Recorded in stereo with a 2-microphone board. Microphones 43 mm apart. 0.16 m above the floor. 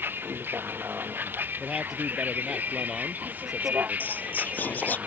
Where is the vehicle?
55° right (ahead or behind); by 5.1 s 40° right (ahead or behind).